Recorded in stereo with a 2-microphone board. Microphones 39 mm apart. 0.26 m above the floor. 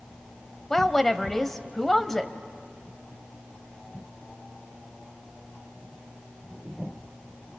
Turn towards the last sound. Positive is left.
turn(degrees=10)  # may be behind; listen again after turning